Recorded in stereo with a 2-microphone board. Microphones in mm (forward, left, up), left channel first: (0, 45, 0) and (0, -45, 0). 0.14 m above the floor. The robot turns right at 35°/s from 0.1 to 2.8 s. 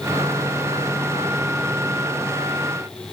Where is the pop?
No pop in this recording.